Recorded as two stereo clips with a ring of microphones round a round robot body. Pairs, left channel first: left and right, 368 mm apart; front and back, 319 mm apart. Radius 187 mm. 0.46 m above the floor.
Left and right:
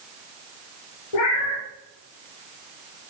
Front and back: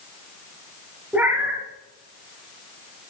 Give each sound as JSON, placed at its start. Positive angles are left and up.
{"t": 1.1, "sound": "a cat meowing", "azimuth_deg": 95, "distance_m": 3.5}